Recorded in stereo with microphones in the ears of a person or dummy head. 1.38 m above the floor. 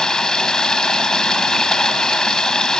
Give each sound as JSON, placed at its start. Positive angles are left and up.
{"t": 0.0, "sound": "running water", "side_deg": 5}